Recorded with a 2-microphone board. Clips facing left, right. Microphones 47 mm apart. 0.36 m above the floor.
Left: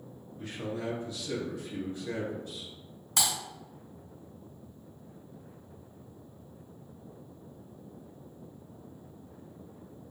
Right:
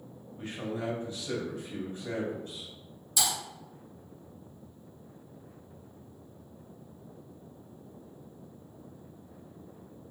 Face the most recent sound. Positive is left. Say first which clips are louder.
# even
turn(degrees=60)  # may be behind; listen again after turning